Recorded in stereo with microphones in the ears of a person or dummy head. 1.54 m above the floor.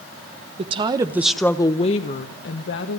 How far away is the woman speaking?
About 1.4 m.